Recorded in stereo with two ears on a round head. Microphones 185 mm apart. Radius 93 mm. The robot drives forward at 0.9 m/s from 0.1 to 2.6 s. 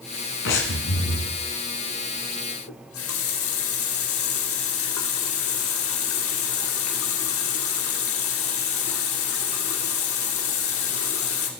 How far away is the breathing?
About 1.7 m.